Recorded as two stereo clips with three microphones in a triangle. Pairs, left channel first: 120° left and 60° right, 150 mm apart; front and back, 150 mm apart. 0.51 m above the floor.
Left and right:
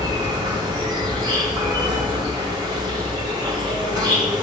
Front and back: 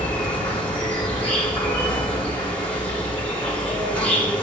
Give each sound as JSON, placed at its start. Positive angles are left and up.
{"t": 0.0, "sound": "an insect", "azimuth_deg": -70, "distance_m": 1.4}